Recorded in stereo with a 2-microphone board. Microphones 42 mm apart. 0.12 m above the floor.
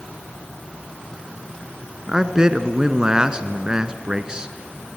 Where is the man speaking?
20° right (ahead or behind), 1.2 m.